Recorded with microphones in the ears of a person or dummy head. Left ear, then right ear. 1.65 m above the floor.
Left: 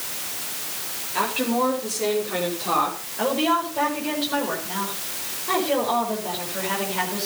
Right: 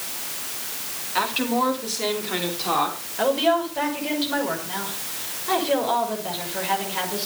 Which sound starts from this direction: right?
A woman speaking, at 1.1 s.